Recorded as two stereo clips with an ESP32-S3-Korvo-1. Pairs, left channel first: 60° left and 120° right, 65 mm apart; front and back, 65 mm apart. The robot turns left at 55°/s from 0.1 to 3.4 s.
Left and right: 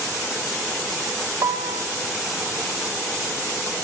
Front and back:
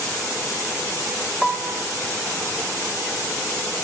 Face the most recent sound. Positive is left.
turn(degrees=155)